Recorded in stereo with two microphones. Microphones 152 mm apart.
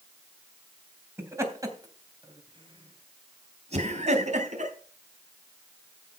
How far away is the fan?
No fan in this recording.